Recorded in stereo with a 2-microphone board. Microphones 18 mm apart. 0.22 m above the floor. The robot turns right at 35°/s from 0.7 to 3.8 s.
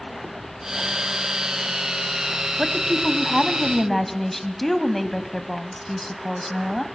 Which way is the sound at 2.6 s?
5° right (ahead or behind).